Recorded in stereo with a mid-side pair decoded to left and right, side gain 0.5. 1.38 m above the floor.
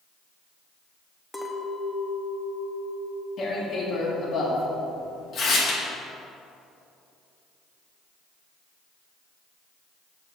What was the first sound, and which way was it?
A clink, 10° left.